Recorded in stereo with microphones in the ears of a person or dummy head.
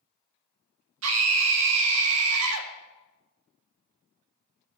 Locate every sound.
1.0 s a scream: 75° right (ahead or behind), 0.9 m